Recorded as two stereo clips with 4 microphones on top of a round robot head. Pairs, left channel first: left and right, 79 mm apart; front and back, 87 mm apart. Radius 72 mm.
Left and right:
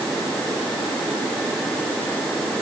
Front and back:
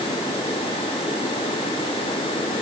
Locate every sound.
Only background noise.